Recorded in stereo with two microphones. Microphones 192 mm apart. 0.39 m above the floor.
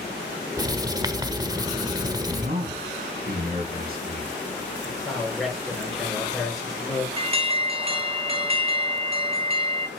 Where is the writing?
20° right (ahead or behind), 0.9 m.